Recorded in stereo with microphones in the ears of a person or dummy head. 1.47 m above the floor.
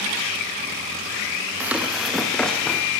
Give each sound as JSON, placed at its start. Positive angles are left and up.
{"t": 1.6, "sound": "running footsteps", "side_deg": -5, "distance_m": 3.5}